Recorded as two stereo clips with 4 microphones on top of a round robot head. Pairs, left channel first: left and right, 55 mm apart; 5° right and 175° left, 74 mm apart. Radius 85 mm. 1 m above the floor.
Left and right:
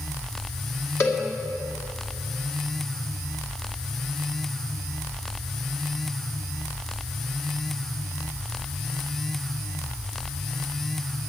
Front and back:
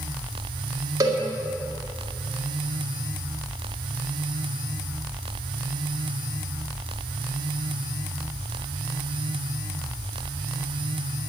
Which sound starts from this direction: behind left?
A cowbell, at 1.0 s.